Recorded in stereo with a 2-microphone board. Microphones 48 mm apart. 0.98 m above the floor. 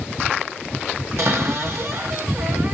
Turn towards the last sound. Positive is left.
turn(degrees=-70)  # may be behind; listen again after turning